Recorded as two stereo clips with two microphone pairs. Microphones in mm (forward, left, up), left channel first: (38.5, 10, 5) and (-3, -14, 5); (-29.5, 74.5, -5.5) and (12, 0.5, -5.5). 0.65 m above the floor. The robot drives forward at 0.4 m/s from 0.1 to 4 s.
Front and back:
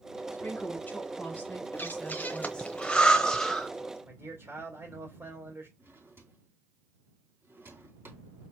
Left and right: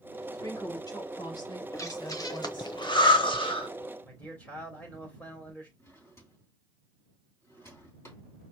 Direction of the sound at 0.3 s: 75° left.